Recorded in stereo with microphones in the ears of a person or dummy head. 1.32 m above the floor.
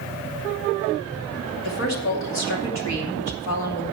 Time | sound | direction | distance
1.6 | a woman speaking | 60° left (ahead or behind) | 2.5 m